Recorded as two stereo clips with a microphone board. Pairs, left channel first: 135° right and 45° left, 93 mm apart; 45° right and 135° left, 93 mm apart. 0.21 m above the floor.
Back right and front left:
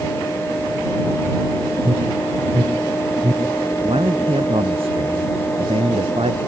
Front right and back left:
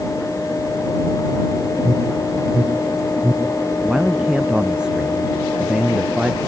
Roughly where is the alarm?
Left.